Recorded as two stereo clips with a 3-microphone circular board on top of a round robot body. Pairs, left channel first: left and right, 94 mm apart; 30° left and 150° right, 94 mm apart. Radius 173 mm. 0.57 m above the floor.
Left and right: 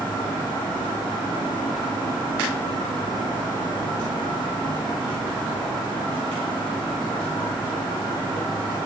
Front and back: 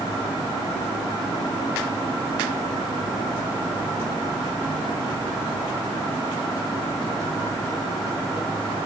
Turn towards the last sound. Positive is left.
No sound to turn to.